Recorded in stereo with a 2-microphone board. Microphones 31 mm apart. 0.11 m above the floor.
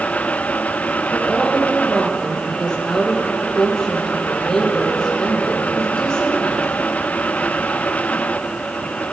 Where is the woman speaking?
20° left (ahead or behind), 3.5 m.